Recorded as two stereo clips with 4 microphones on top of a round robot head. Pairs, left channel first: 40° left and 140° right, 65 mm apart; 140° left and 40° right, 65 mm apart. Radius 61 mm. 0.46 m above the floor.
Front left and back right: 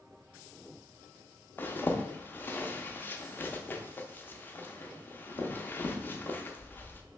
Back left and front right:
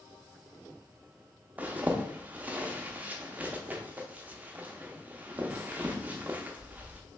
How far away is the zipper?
About 0.6 m.